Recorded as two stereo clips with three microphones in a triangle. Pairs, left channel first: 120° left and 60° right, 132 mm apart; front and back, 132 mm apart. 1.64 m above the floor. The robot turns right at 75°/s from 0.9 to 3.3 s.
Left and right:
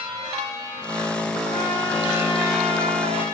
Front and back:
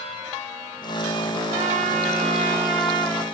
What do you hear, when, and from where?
1.5 s a trumpet: 170° left, 1.5 m; by 3.2 s 60° right, 1.5 m